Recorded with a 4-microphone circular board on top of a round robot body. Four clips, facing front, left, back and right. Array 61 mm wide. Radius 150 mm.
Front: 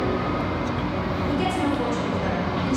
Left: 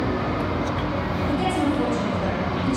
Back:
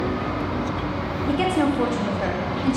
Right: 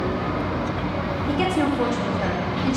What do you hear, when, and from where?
1.3 s a woman speaking: 155° right, 2 m